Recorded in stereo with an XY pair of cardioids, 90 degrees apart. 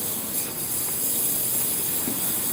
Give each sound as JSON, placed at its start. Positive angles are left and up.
{"t": 0.0, "sound": "a lawn mower", "azimuth_deg": 0}